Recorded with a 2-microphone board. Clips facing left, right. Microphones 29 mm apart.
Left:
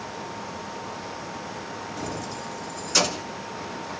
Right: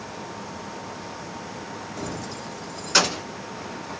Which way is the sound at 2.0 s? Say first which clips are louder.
Even; 5° left (ahead or behind).